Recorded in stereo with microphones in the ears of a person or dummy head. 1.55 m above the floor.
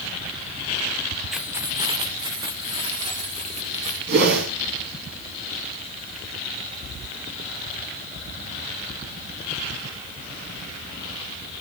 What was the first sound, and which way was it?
Keys jangling, centre (ahead or behind).